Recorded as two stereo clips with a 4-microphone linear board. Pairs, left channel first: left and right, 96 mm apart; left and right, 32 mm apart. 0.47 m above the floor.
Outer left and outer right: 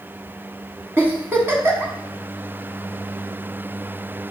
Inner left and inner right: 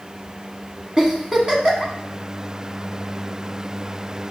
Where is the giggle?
25° right (ahead or behind), 0.7 m.